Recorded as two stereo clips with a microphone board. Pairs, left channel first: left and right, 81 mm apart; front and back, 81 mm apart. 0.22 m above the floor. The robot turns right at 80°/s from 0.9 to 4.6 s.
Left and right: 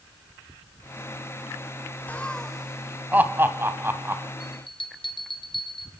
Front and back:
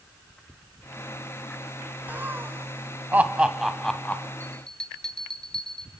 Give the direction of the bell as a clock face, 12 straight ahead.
10 o'clock.